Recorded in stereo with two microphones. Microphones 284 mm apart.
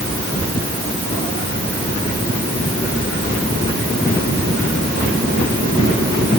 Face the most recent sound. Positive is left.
No sound to turn to.